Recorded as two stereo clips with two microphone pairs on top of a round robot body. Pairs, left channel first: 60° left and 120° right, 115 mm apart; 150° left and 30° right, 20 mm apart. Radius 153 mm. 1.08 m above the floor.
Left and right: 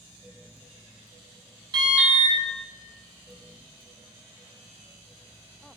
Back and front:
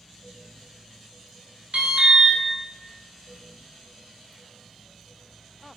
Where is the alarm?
70° right, 1.2 m.